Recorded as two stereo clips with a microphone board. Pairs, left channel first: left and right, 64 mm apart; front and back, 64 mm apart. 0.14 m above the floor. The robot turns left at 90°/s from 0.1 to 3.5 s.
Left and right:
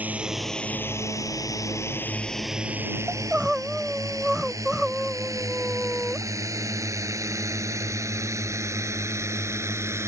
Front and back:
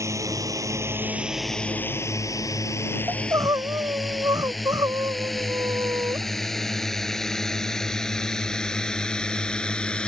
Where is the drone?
155° right; by 10.1 s 70° right.